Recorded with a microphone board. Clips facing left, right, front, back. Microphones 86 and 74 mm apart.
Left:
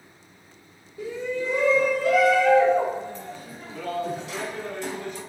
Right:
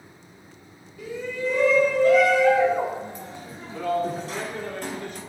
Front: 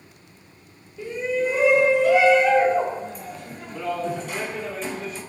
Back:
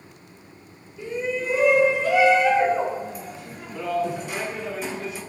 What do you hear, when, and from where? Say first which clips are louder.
1.0 s a shout: left 1 dB, front 3 dB; 95° left, 1.5 m; by 5.2 s 100° right, 2 m